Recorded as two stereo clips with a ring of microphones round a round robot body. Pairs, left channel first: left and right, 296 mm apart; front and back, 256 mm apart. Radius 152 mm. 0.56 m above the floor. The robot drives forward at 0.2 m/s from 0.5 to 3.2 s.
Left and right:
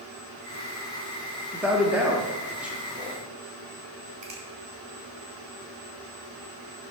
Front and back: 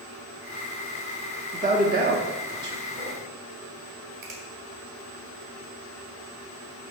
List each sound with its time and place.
1.5 s a man speaking: 170° right, 0.9 m; by 3.2 s 175° right, 1.1 m
4.2 s a finger snap: 160° right, 2.5 m